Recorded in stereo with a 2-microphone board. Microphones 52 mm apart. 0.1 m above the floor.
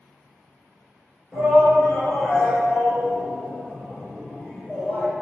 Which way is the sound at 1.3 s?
10° right (ahead or behind).